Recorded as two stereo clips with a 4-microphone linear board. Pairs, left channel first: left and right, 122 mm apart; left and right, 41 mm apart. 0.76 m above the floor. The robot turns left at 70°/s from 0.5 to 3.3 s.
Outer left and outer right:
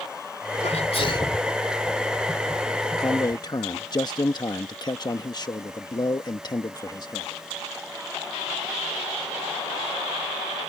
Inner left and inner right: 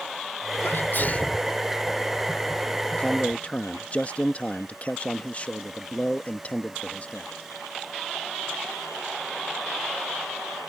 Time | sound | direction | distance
0.6 | a sneeze | 80° left | ?
3.0 | a man speaking | 35° left (ahead or behind) | ?